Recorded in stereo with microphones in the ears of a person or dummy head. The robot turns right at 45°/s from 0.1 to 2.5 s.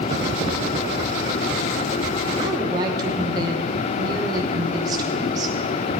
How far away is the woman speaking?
About 1.2 m.